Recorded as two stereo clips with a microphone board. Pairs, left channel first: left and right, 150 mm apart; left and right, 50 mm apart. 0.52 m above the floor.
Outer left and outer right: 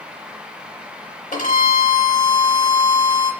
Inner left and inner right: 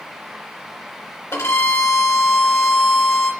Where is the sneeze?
No sneeze in this recording.